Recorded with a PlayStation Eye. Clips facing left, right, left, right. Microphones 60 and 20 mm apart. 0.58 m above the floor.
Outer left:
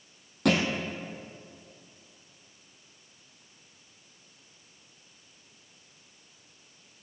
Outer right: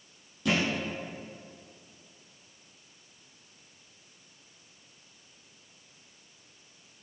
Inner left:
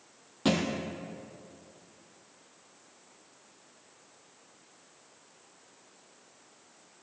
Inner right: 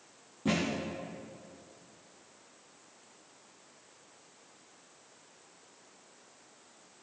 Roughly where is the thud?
Left.